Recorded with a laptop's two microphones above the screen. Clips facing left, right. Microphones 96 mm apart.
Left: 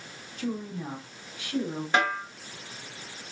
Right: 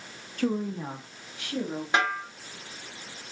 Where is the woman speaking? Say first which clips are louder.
Right 5 dB; 55° right (ahead or behind), 0.6 m; by 1.8 s 60° right (ahead or behind), 2.5 m.